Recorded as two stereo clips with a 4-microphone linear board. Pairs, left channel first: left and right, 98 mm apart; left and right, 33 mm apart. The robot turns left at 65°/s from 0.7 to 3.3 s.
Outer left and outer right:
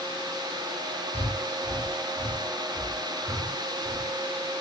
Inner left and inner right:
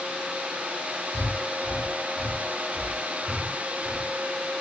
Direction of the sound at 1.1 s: 75° left (ahead or behind).